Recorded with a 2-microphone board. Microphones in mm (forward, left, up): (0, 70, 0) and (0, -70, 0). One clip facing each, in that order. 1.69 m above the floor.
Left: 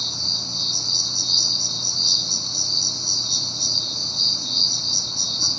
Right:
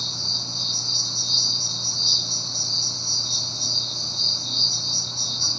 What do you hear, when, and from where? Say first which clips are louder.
0.0 s an insect: left 1 dB; 70° left (ahead or behind), 2 m